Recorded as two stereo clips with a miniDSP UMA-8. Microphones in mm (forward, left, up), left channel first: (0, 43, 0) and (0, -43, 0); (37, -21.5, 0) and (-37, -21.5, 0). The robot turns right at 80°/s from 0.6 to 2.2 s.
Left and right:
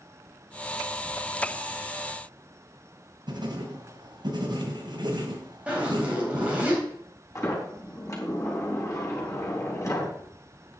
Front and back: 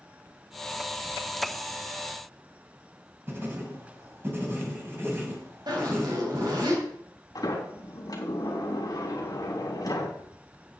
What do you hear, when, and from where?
3.3 s writing: 120° right, 2.5 m
5.7 s a zipper: 165° right, 4 m
7.3 s a sliding door: 35° left, 3.5 m